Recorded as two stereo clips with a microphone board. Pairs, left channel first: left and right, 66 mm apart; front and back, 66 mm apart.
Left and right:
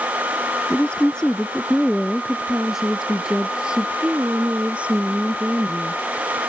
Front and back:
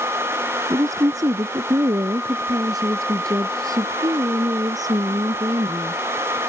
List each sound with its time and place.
0.7 s a woman speaking: 160° left; by 6.0 s 155° right